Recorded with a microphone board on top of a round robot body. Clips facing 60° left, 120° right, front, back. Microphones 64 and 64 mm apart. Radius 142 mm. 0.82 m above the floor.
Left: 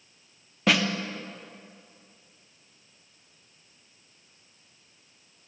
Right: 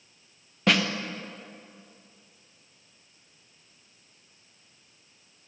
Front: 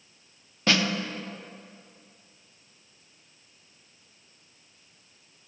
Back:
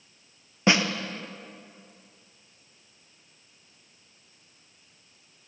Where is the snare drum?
150° left, 0.5 m.